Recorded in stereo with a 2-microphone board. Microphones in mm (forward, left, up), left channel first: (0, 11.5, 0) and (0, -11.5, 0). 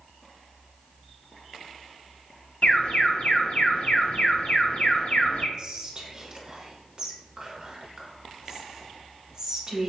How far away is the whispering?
About 1.1 m.